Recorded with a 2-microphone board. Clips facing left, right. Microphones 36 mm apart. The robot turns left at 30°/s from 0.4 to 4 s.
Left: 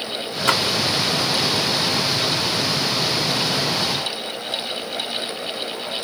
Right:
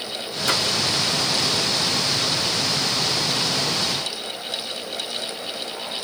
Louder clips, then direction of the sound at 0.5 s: Left 4 dB; 50° left (ahead or behind).